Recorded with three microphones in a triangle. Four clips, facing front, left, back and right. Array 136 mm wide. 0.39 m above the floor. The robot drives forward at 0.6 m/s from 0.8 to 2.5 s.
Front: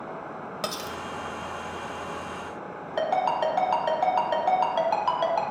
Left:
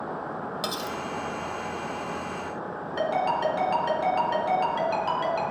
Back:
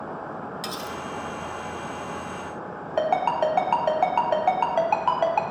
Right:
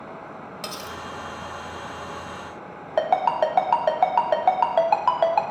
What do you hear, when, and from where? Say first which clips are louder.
0.6 s cutlery clinking: left 1 dB, even; 20° left, 1.1 m; by 1.0 s 25° left, 1.0 m
3.0 s a ringtone: right 5 dB, back 2 dB; 105° right, 1.7 m